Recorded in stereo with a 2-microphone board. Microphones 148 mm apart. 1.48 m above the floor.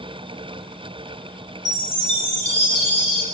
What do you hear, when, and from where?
1.6 s a chime: 25° right (ahead or behind), 5 m